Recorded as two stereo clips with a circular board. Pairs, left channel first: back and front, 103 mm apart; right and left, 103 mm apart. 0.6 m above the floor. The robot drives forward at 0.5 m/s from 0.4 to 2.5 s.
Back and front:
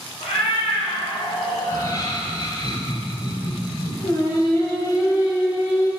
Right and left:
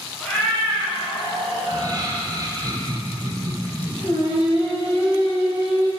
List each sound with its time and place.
0.2 s a cat meowing: 170° right, 2.5 m
1.6 s laughter: 135° left, 2.5 m; by 3.9 s 140° left, 3 m
4.0 s singing: 130° right, 3 m